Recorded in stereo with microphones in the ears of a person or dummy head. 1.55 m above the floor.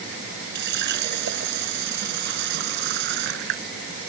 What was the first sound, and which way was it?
A running tap, 60° right (ahead or behind).